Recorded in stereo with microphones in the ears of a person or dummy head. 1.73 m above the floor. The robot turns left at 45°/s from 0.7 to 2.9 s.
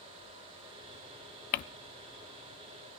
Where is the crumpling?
50° left (ahead or behind), 0.6 m; by 1.6 s 45° left (ahead or behind), 0.6 m.